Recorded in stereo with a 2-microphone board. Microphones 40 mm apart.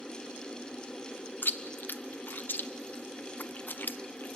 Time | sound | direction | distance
1.4 | chewing | 55° left (ahead or behind) | 0.7 m